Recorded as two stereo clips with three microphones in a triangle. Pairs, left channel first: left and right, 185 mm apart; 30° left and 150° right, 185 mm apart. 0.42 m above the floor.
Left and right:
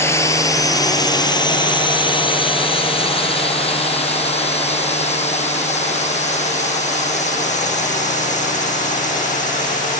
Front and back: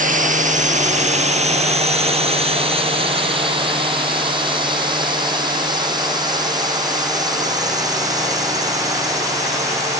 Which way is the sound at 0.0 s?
165° left.